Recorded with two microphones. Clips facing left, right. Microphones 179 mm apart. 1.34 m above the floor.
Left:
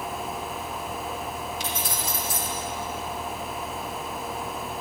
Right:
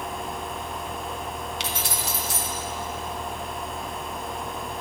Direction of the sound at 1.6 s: 75° right (ahead or behind).